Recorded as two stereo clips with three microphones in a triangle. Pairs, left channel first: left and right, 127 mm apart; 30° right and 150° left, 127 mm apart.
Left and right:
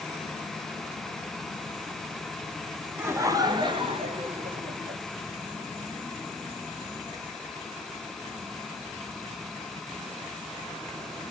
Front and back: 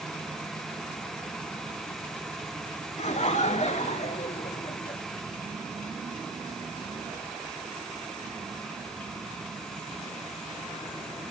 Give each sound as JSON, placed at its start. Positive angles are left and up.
{"t": 3.0, "sound": "laughter", "azimuth_deg": -20, "distance_m": 2.5}